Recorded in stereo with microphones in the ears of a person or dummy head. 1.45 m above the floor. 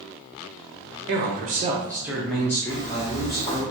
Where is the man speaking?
60° right (ahead or behind), 0.7 m; by 3.7 s 30° left (ahead or behind), 1.4 m.